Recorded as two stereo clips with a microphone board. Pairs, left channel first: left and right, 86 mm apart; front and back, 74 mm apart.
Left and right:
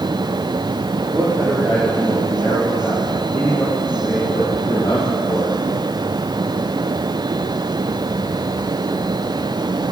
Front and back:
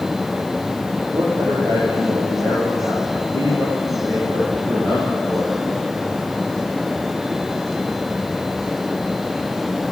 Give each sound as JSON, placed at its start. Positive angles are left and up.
{"t": 1.1, "sound": "a man speaking", "azimuth_deg": -150, "distance_m": 4.5}